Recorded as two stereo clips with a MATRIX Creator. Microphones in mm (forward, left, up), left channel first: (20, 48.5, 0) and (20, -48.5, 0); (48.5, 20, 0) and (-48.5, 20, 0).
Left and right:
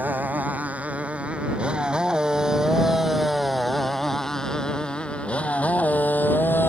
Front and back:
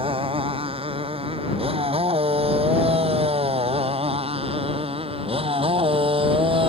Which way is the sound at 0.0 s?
160° right.